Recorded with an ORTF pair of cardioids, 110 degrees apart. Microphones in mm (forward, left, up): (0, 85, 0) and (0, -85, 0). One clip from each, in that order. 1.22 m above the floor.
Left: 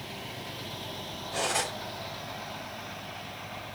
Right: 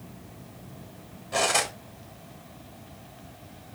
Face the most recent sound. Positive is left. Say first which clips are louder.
# right 5 dB
turn(degrees=-60)